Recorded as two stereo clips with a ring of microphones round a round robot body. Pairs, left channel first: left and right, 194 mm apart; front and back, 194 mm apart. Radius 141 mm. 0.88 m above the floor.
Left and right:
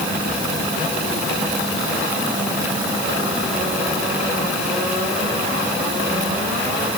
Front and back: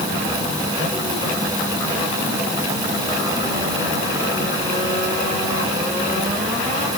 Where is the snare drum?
No snare drum in this recording.